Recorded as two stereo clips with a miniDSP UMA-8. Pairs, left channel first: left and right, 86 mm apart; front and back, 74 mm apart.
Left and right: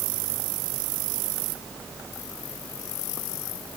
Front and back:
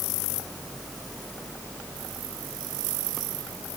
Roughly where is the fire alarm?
I don't hear a fire alarm.